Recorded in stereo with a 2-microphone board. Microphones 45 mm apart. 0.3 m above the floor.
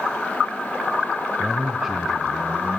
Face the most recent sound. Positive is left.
turn(degrees=-15)  # may be behind; listen again after turning